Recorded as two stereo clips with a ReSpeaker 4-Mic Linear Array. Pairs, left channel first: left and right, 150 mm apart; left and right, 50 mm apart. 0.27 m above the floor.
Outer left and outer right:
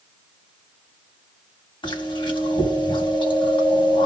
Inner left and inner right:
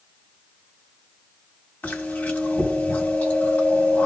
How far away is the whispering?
I don't hear whispering.